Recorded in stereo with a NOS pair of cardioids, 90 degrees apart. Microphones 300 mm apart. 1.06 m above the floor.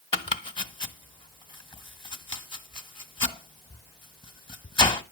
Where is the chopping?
15° left, 1.5 m.